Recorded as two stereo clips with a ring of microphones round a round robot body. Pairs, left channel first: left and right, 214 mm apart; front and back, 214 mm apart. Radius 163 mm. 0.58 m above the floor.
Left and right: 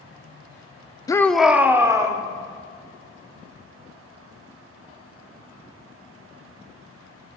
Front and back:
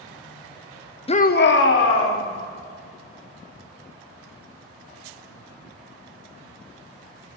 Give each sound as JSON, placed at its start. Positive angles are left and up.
{"t": 1.1, "sound": "a shout", "azimuth_deg": 30, "distance_m": 0.8}